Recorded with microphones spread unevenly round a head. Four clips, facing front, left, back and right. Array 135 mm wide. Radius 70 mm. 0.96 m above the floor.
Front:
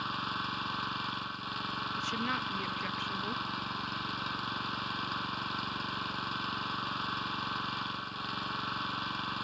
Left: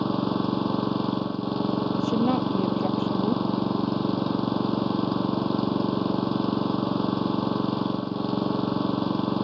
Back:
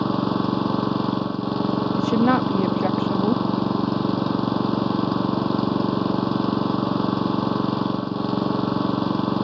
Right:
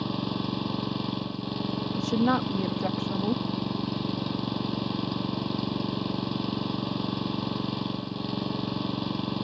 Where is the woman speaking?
175° right.